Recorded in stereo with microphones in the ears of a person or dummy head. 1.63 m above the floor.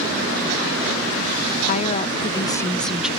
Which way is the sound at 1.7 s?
40° left (ahead or behind).